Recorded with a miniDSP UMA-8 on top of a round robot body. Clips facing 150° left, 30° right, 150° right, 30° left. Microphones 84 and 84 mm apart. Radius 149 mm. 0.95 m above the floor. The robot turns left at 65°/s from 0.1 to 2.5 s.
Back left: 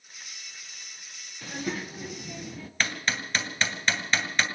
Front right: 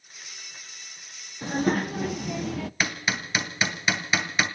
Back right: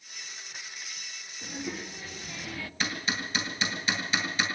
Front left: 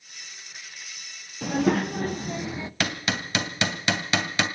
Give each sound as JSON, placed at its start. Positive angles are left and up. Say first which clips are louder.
{"t": 1.4, "sound": "a child speaking", "louder": "front right 9 dB, front left 15 dB", "azimuth_deg": 30, "distance_m": 0.7}
{"t": 2.8, "sound": "hammering", "louder": "back left 1 dB, front left 4 dB", "azimuth_deg": 50, "distance_m": 2.0}